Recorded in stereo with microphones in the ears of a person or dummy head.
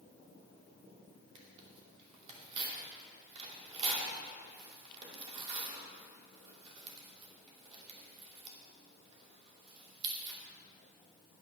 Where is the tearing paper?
35° right (ahead or behind), 2.5 m.